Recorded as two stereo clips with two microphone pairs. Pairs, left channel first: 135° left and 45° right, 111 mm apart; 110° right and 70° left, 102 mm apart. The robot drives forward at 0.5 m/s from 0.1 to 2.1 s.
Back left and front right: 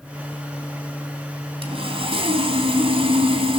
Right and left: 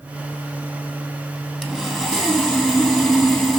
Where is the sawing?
20° right, 3 m; by 3.6 s 25° right, 3 m.